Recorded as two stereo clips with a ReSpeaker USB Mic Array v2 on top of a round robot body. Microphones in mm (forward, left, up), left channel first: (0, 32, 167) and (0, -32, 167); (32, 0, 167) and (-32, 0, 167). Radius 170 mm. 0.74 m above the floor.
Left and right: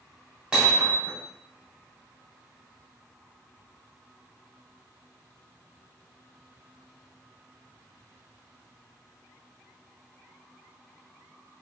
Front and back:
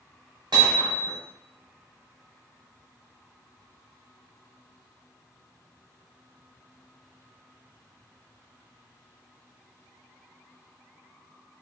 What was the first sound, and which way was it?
Hammering, 165° right.